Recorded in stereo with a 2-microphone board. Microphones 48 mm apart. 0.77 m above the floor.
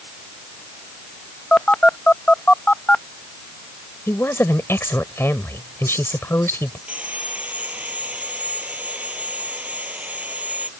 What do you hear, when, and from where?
1.5 s a phone buzzing: 25° left (ahead or behind)
4.1 s a woman speaking: 60° left (ahead or behind)
6.9 s sawing: 30° right (ahead or behind)